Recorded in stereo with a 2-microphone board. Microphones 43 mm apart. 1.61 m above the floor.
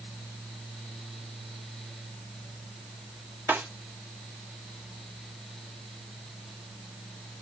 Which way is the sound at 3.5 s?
50° right (ahead or behind).